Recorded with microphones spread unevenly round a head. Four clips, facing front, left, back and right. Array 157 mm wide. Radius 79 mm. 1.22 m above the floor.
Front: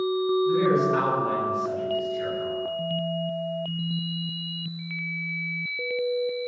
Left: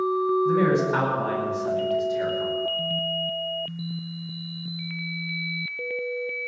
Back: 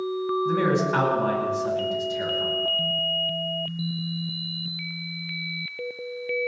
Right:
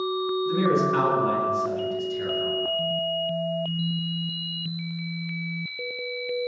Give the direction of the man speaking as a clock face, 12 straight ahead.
8 o'clock.